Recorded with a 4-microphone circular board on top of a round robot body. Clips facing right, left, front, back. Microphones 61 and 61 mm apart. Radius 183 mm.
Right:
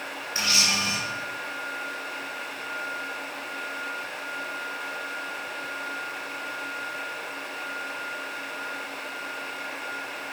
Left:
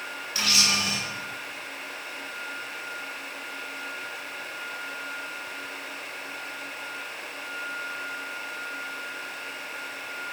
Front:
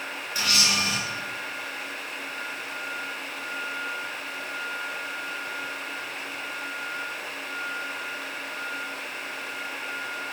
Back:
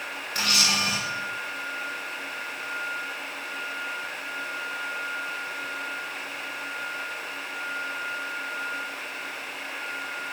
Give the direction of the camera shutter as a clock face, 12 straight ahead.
5 o'clock.